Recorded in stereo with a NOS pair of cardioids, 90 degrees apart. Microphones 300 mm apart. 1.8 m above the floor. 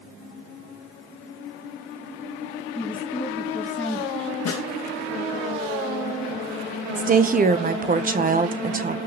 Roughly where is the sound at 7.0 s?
Ahead right.